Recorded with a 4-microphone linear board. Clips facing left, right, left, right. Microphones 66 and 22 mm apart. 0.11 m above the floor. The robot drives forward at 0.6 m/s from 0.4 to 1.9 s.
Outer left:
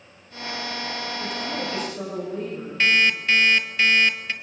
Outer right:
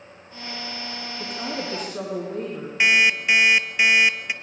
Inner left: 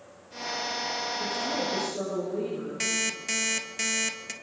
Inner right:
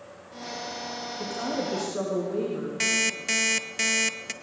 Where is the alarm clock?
15° right (ahead or behind), 1.2 m.